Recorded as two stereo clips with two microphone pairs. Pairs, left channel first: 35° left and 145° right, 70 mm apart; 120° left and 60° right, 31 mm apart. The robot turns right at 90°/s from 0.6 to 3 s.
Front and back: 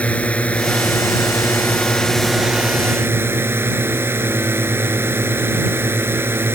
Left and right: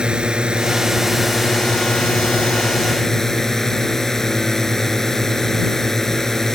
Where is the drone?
25° right; by 6.5 s 170° right.